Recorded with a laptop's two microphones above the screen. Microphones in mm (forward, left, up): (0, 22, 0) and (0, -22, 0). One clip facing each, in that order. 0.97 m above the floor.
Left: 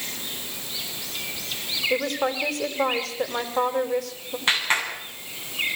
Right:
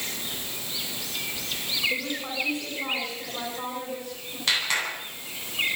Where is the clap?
30° left (ahead or behind), 9.5 m.